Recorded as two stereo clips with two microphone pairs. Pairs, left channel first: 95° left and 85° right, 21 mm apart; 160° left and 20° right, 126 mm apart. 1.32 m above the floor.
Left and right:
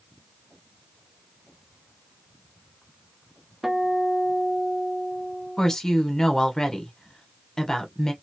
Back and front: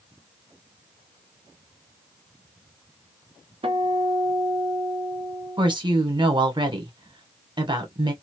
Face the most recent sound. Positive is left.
turn(degrees=30)